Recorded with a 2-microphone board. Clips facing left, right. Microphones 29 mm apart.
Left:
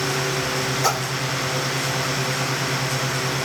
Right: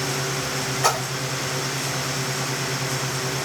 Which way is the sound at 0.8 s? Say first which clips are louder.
Right 2 dB; 50° right (ahead or behind).